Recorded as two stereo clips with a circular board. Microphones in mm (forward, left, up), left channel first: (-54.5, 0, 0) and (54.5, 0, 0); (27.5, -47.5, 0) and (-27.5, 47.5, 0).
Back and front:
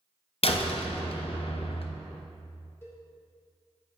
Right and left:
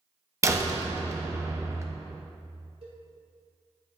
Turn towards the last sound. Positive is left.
turn(degrees=115)